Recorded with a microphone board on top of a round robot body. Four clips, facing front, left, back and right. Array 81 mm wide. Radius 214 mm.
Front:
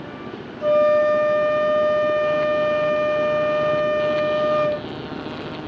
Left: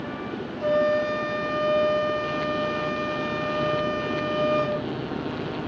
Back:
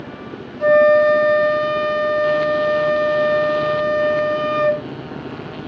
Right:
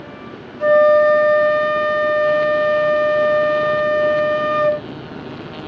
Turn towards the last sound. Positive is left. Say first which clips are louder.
# right 11 dB, back 4 dB
turn(degrees=-120)